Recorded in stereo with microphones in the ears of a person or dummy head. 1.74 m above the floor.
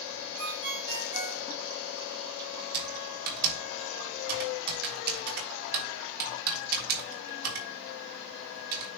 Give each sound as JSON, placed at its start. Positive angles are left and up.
{"t": 0.4, "sound": "a ringtone", "side_deg": -65, "distance_m": 4.5}
{"t": 2.7, "sound": "typing on a keyboard", "side_deg": -55, "distance_m": 3.0}